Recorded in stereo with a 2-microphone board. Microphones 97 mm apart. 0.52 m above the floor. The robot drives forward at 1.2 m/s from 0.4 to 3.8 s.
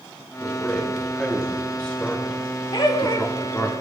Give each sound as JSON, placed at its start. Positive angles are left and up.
{"t": 0.4, "sound": "a man speaking", "side_deg": 5, "distance_m": 3.5}
{"t": 2.7, "sound": "laughter", "side_deg": 50, "distance_m": 1.5}